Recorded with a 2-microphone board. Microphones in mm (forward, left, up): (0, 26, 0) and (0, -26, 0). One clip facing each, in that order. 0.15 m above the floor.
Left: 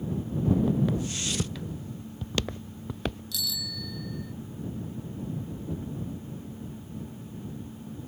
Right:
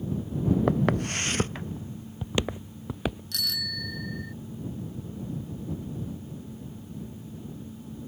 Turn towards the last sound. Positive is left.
turn(degrees=-55)  # may be behind; listen again after turning